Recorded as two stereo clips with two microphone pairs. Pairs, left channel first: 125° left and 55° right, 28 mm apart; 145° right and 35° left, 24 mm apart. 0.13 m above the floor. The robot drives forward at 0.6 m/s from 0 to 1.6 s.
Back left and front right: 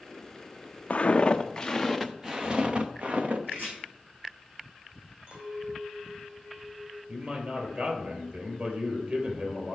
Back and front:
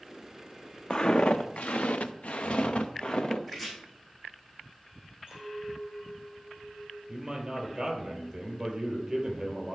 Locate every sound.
0.9 s footsteps: 170° left, 0.7 m; by 3.4 s 95° right, 1.3 m
3.5 s chopping: 60° right, 4 m
5.3 s a clink: 25° right, 4 m
7.1 s a man speaking: 30° right, 3 m